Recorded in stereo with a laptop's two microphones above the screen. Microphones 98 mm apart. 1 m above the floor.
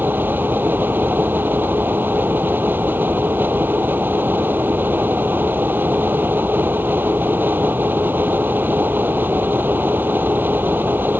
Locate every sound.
0.0 s a fan: 20° right (ahead or behind)